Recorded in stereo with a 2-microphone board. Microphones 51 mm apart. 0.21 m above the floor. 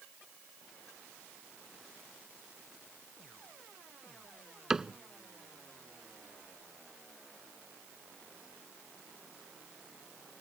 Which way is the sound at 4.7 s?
10° right (ahead or behind).